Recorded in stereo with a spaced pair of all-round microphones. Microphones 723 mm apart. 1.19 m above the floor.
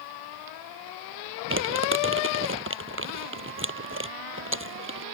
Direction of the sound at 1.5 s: 15° right (ahead or behind).